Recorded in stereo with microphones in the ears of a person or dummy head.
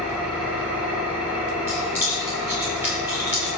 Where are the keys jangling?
15° right (ahead or behind), 2 m.